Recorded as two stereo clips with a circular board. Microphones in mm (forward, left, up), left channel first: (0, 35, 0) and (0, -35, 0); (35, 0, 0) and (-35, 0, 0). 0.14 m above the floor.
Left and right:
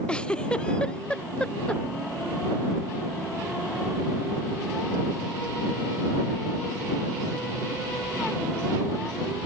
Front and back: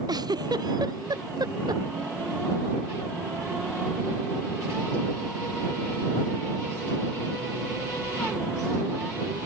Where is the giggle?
165° left.